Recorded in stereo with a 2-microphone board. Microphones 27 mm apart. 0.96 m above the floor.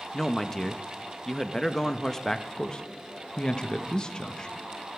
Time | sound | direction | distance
0.1 | a man speaking | 20° left (ahead or behind) | 0.7 m
2.6 | a man speaking | 35° left (ahead or behind) | 0.8 m